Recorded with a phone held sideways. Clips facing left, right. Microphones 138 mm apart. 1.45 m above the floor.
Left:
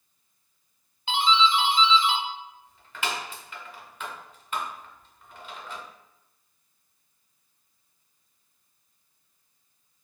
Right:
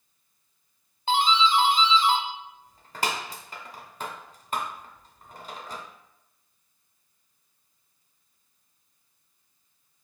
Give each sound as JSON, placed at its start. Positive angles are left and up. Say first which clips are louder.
{"t": 1.1, "sound": "a doorbell", "louder": "right 1 dB", "side_deg": -35, "distance_m": 0.6}